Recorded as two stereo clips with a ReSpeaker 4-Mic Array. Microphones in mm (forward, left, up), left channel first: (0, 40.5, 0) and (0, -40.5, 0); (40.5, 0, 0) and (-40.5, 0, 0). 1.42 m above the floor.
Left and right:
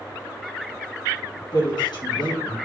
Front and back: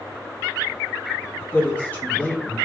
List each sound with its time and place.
1.5 s a woman speaking: 65° left, 1.7 m